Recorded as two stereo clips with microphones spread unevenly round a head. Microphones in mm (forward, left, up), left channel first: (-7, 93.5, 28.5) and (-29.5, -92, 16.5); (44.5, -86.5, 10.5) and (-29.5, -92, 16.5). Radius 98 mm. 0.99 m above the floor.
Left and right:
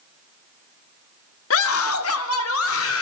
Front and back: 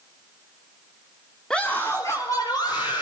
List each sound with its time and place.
1.5 s a scream: 90° left, 2 m; by 3.0 s 65° left, 3.5 m